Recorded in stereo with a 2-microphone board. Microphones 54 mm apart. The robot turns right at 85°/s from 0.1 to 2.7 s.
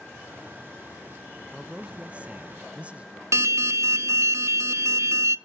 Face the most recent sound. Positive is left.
turn(degrees=-60)  # may be behind; listen again after turning